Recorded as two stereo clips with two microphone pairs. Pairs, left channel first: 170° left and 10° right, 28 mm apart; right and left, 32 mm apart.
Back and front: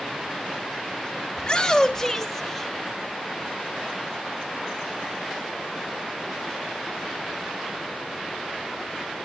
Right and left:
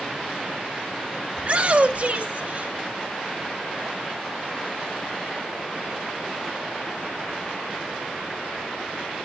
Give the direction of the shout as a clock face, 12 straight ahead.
8 o'clock.